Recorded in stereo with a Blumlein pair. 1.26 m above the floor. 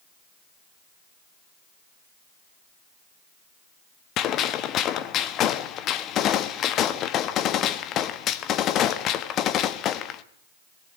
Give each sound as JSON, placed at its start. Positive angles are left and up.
{"t": 4.2, "sound": "a gunshot", "azimuth_deg": 30, "distance_m": 1.4}